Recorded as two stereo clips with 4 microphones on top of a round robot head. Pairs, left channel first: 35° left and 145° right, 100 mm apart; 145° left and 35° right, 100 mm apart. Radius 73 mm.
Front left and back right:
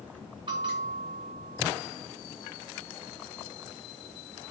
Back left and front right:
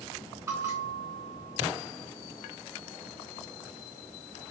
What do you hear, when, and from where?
0.5 s a bell: 100° right, 2.5 m